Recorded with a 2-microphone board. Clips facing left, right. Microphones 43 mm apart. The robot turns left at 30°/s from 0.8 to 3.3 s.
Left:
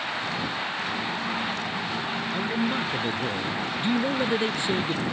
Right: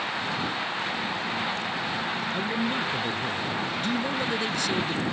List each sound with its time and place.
2.3 s a man speaking: 5° right (ahead or behind); by 5.0 s 25° left (ahead or behind)